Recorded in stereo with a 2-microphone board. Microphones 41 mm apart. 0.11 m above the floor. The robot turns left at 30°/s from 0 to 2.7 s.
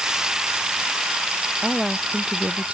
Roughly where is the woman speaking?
Ahead.